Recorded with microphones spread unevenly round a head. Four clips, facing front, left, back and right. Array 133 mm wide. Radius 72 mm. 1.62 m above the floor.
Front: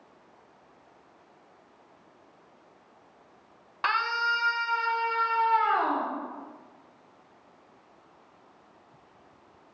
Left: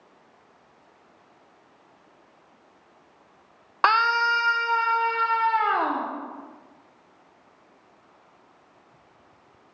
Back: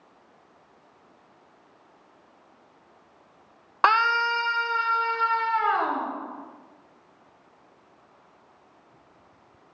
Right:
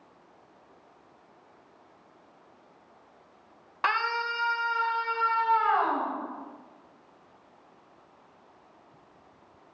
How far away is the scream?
About 0.8 m.